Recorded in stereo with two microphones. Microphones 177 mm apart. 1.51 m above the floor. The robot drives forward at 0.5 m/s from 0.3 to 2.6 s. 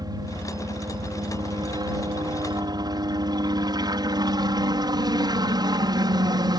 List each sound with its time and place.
0.0 s a helicopter: 25° right (ahead or behind)